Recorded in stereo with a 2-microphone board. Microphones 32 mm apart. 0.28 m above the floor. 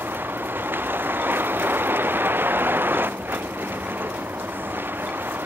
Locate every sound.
0.0 s a vehicle: 80° right